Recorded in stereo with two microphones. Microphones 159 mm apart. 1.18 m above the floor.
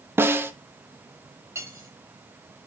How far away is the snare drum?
About 0.8 m.